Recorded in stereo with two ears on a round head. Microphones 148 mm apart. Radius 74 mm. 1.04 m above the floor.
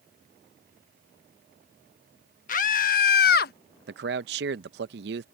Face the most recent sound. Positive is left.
turn(degrees=-70)  # may be behind; listen again after turning